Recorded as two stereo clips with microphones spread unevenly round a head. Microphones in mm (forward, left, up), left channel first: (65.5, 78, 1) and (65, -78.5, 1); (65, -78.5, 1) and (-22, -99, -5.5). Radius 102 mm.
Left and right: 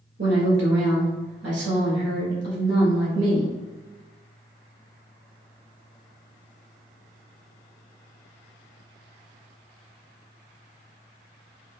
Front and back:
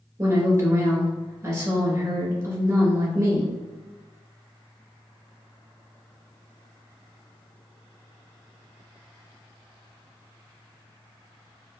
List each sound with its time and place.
0.2 s a woman speaking: 115° right, 1.7 m